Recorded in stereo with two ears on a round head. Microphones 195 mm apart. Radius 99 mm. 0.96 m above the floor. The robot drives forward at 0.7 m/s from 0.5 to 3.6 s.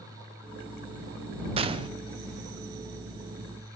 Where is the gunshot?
25° right (ahead or behind), 0.5 m.